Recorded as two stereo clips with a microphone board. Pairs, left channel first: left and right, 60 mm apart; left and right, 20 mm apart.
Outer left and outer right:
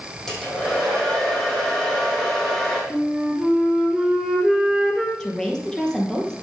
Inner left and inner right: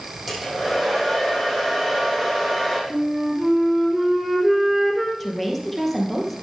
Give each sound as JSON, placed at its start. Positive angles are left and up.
{"t": 0.3, "sound": "a hair dryer", "side_deg": 5, "distance_m": 5.0}
{"t": 2.9, "sound": "a flute", "side_deg": 0, "distance_m": 2.5}
{"t": 5.2, "sound": "a woman speaking", "side_deg": 10, "distance_m": 3.0}